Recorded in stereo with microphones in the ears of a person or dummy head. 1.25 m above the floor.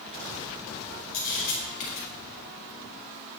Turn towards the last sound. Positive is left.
turn(degrees=50)  # may be behind; listen again after turning